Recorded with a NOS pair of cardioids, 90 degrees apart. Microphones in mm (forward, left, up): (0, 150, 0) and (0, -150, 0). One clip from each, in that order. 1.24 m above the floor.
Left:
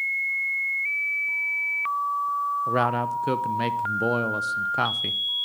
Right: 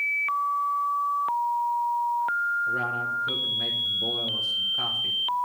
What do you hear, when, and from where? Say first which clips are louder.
2.7 s a man speaking: left 3 dB; 70° left, 0.8 m